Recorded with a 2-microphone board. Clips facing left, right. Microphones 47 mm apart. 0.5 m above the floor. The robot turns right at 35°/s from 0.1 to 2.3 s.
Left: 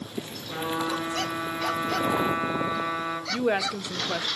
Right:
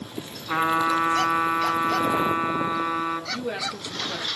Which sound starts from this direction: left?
A woman speaking, at 3.3 s.